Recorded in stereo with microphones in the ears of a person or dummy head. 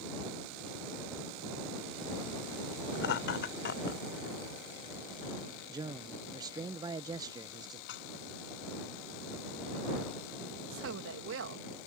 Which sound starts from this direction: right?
A woman speaking, at 10.7 s.